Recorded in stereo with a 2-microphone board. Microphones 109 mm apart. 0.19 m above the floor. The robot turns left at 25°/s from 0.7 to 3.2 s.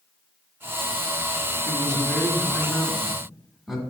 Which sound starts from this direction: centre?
A man speaking, at 1.6 s.